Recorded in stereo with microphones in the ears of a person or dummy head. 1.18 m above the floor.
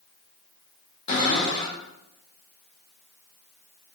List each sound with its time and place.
1.1 s a cupboard door: 30° left (ahead or behind), 1.8 m